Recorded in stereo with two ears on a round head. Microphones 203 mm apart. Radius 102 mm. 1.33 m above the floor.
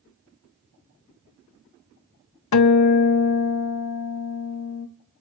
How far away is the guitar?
About 0.6 m.